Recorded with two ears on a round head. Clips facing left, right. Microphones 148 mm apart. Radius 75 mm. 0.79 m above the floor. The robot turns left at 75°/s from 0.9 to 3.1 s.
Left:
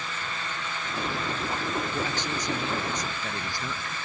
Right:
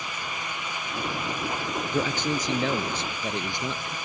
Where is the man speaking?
75° right; by 4.0 s 160° right.